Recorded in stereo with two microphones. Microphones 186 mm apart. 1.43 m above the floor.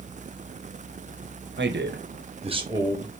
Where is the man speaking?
80° right, 1.0 m; by 3.2 s centre (ahead or behind), 1.2 m.